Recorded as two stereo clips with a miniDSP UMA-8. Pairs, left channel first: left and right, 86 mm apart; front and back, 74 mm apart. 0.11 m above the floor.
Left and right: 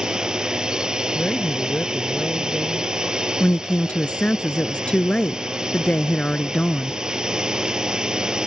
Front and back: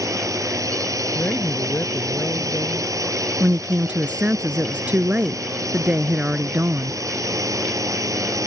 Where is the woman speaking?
150° left.